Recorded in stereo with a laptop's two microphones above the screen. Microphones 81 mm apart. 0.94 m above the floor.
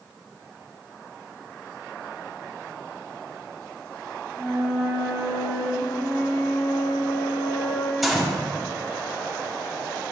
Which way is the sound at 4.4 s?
5° right (ahead or behind).